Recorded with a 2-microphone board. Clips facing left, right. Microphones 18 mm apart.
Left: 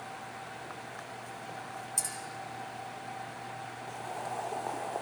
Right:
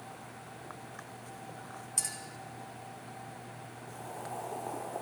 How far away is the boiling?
About 1.7 m.